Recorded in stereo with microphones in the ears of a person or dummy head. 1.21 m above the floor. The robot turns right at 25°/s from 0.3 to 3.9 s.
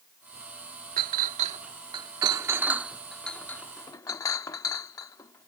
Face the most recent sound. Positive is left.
turn(degrees=20)  # may be behind; listen again after turning